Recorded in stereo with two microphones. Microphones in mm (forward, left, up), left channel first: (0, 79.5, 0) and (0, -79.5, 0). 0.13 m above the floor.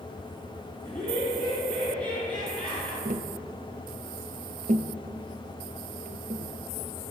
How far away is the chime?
I don't hear a chime.